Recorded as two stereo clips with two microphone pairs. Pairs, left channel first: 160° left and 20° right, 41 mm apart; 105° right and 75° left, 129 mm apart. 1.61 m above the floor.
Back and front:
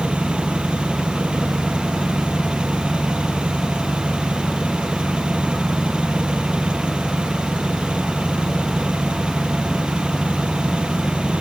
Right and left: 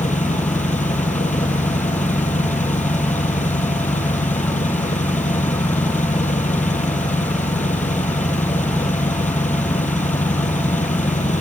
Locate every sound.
0.0 s an engine running: 85° right